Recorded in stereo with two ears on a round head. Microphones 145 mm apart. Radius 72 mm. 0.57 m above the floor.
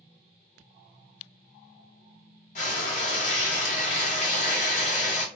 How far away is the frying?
About 0.9 m.